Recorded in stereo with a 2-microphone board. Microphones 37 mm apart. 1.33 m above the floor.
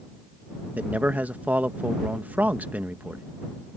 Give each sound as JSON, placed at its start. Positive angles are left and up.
{"t": 0.8, "sound": "a man speaking", "side_deg": -50}